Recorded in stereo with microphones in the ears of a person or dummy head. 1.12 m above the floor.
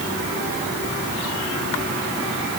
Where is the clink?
No clink in this recording.